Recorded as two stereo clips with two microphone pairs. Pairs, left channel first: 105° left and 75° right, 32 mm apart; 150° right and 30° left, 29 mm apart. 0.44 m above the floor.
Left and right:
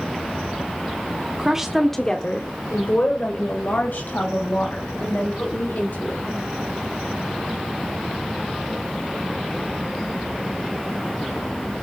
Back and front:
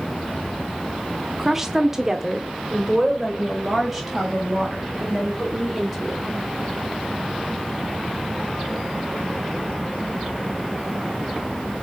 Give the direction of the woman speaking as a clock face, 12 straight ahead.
1 o'clock.